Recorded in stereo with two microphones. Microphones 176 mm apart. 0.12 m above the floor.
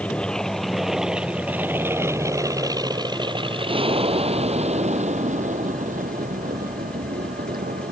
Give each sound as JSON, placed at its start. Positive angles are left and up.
{"t": 0.0, "sound": "an aircraft", "side_deg": 5}